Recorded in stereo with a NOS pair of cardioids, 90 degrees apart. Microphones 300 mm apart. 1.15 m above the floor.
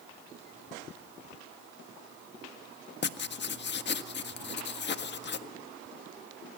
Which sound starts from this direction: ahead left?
Writing, at 3.0 s.